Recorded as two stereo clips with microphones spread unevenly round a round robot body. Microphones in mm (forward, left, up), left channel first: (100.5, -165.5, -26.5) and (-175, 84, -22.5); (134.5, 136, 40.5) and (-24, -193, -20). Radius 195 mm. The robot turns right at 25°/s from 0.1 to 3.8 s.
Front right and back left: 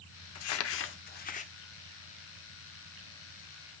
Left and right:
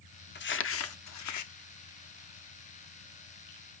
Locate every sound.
0.3 s crumpling: straight ahead, 1.1 m; by 1.5 s 30° left, 1.1 m